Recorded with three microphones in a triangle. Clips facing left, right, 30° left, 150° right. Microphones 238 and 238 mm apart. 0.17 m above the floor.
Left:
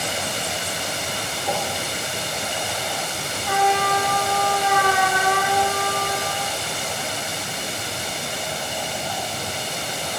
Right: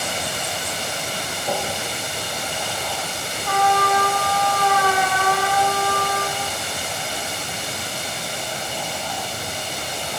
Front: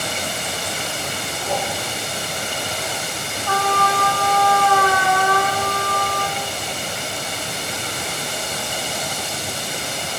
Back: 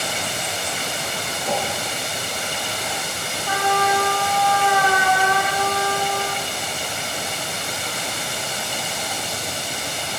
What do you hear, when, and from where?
1.4 s a whoosh: 135° right, 4 m
3.5 s a trumpet: 155° left, 1.6 m